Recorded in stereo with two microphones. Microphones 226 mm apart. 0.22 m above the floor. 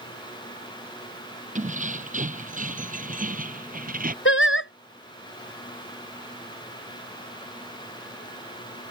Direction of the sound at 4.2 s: 65° left (ahead or behind).